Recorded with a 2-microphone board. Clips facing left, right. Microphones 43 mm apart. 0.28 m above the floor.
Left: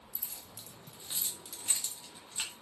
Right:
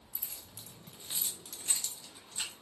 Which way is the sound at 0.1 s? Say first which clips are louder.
Right 1 dB; 45° right (ahead or behind).